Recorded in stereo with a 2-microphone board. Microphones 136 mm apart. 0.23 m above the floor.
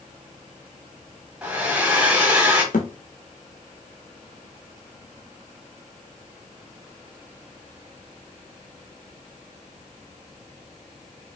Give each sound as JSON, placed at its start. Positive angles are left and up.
{"t": 1.4, "sound": "a hair dryer", "side_deg": -10, "distance_m": 1.1}
{"t": 2.7, "sound": "a thud", "side_deg": 75, "distance_m": 1.0}